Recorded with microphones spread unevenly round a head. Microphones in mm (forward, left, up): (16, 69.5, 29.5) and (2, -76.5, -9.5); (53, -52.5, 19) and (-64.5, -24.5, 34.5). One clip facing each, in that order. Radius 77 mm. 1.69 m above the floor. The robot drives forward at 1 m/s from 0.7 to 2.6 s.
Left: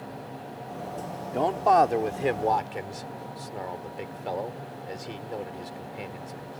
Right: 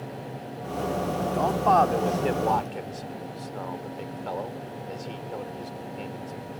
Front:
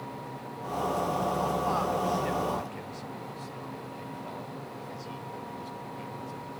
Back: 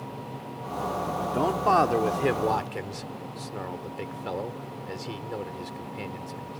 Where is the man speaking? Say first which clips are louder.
Left 1 dB, back 6 dB; 150° left; by 6.6 s 160° left.